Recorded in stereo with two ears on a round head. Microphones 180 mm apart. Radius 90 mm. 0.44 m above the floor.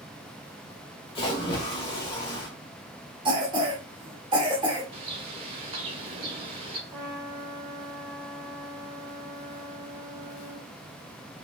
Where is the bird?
30° right (ahead or behind), 0.9 m.